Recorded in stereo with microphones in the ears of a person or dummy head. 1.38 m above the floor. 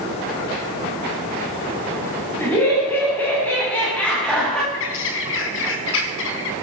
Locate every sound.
2.4 s laughter: 10° left (ahead or behind), 8.5 m; by 4.6 s 5° left (ahead or behind), 7 m
4.7 s a bird: 70° left (ahead or behind), 2.5 m